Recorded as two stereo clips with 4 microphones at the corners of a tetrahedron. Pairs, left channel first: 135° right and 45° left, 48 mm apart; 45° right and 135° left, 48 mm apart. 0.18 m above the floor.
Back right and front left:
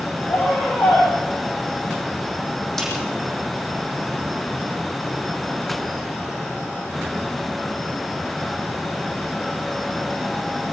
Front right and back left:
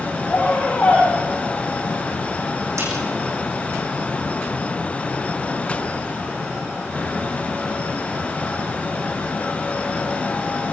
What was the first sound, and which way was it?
A scream, 100° right.